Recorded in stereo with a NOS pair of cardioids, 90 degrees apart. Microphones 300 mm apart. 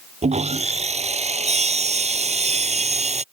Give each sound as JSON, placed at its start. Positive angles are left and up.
{"t": 0.2, "sound": "sawing", "azimuth_deg": -25}